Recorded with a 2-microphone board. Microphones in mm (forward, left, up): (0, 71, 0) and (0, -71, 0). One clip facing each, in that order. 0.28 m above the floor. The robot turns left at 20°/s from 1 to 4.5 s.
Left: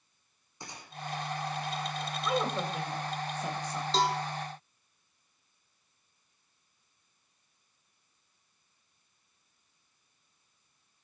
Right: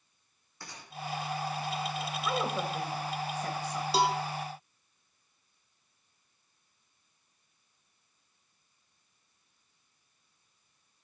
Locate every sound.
0.6 s a gunshot: 20° left (ahead or behind), 2.5 m
2.2 s a woman speaking: 5° left (ahead or behind), 1.0 m; by 3.8 s 15° left (ahead or behind), 1.0 m
3.9 s a cowbell: 10° right (ahead or behind), 0.7 m; by 4.2 s 15° right (ahead or behind), 0.7 m